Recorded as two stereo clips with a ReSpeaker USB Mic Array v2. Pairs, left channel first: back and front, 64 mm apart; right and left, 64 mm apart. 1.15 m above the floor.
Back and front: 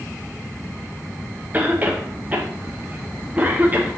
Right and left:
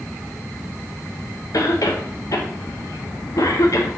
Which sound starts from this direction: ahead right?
A cough, at 1.5 s.